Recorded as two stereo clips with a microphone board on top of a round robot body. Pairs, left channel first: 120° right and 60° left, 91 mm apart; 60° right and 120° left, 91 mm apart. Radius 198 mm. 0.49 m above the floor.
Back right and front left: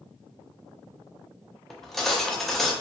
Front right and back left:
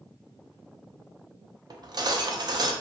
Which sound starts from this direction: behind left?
Cutlery clinking, at 1.7 s.